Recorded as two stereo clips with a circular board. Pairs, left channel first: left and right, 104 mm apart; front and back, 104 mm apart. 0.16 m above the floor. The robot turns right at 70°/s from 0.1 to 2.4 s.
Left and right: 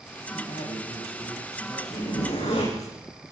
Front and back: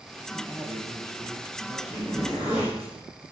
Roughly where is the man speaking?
Ahead left.